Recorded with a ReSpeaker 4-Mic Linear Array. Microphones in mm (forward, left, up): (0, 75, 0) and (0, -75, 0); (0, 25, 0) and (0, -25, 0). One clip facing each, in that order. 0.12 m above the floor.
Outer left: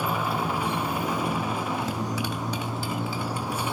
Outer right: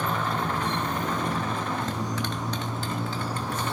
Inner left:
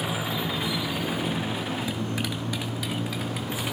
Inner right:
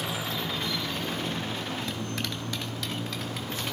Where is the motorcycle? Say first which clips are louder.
Outer left 1 dB, inner left 3 dB; 10° left (ahead or behind).